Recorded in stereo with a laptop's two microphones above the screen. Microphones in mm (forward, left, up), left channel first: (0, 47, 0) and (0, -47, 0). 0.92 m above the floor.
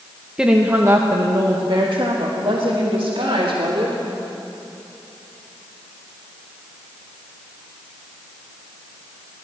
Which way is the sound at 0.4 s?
10° right (ahead or behind).